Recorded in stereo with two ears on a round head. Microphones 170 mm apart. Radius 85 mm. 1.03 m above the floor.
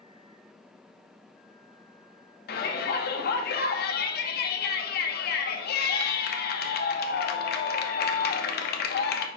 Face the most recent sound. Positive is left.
turn(degrees=55)  # may be behind; listen again after turning